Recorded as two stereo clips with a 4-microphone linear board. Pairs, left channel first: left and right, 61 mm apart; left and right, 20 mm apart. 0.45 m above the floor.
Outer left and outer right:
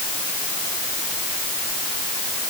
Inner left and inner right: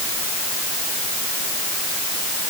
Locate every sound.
Only background noise.